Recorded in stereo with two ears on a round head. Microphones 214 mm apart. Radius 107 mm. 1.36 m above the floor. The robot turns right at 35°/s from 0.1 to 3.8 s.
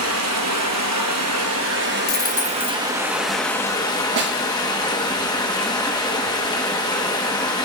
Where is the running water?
110° right, 1.1 m; by 7.7 s 20° left, 1.1 m.